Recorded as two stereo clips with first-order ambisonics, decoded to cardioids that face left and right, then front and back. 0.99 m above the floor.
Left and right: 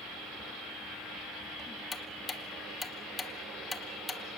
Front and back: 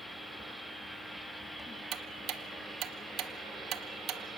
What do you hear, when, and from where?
1.9 s ticking: 165° left, 1.0 m